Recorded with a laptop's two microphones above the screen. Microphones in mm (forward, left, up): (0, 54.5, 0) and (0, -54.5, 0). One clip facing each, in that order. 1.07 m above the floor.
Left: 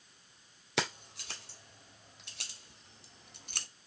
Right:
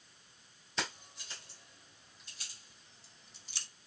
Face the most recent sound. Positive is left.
turn(degrees=55)  # may be behind; listen again after turning